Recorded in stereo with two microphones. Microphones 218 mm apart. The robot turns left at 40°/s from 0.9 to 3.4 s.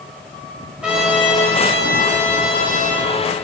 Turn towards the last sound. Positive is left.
turn(degrees=85)